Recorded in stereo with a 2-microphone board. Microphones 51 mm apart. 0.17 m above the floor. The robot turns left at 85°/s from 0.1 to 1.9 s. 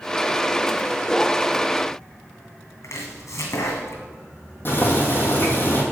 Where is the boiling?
45° left (ahead or behind), 2.5 m.